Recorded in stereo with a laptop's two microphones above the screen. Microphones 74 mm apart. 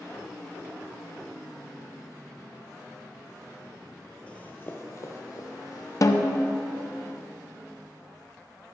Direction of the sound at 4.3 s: 15° left (ahead or behind).